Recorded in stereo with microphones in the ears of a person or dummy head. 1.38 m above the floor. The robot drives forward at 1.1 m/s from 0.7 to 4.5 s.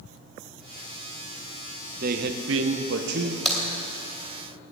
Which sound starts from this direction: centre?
A crack, at 3.5 s.